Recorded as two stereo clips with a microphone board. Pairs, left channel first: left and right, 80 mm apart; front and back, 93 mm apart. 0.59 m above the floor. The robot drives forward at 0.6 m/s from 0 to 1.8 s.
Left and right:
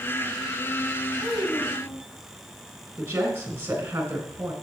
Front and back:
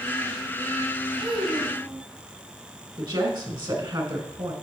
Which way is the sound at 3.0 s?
150° right.